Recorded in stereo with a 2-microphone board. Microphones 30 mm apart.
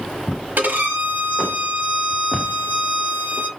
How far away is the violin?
About 0.7 m.